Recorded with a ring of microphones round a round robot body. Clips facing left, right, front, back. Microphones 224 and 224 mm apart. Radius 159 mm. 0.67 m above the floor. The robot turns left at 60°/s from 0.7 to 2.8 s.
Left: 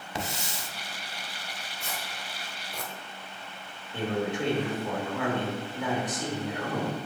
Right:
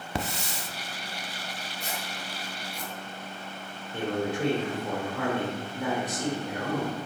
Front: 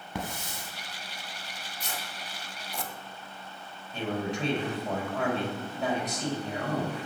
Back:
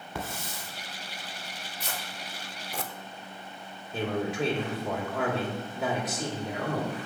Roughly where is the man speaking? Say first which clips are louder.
Even, back 2 dB; behind.